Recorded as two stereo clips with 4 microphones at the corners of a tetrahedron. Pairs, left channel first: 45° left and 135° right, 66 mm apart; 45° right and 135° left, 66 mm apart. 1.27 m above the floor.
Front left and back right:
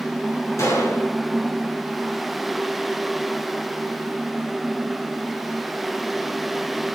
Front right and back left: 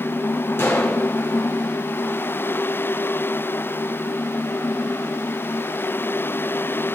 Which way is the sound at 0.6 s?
5° left.